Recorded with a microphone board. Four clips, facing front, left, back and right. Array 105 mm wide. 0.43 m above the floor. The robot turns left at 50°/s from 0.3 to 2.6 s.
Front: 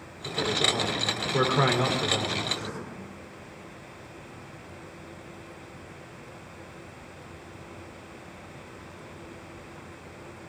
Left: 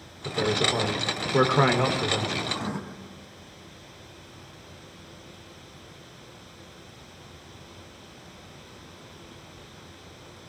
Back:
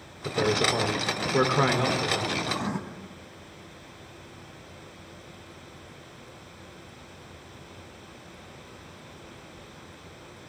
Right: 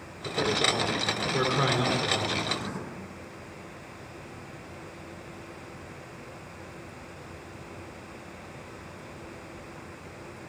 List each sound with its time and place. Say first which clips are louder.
0.2 s a man speaking: left 2 dB, back 4 dB; 165° left, 1.3 m; by 2.4 s 60° left, 1.3 m
2.5 s writing: left 2 dB, back 5 dB; 165° left, 1.2 m; by 2.8 s 160° left, 1.2 m